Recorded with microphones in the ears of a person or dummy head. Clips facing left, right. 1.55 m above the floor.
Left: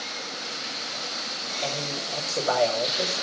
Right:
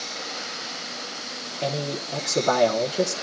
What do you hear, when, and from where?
1.6 s a man speaking: 75° right (ahead or behind), 1.4 m